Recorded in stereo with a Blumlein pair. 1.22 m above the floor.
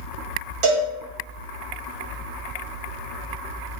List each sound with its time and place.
0.6 s a cowbell: 40° right, 2 m